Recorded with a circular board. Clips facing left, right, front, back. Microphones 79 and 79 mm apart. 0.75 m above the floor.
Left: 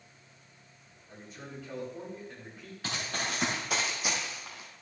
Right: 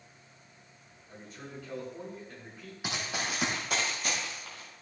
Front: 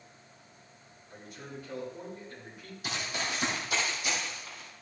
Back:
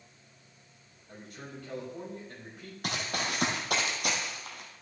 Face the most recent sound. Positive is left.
turn(degrees=155)